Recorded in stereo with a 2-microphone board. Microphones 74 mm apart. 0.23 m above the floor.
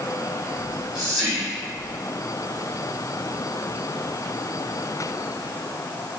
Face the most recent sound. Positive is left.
turn(degrees=-10)  # may be behind; listen again after turning